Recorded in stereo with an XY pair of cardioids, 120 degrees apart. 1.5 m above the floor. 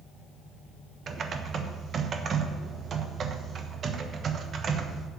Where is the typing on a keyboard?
45° right, 1.1 m.